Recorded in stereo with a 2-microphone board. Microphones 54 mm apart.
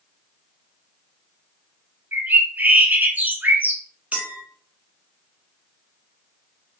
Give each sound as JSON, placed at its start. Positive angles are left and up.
{"t": 2.1, "sound": "a bird", "side_deg": -35, "distance_m": 0.7}
{"t": 4.1, "sound": "a clink", "side_deg": -30, "distance_m": 0.7}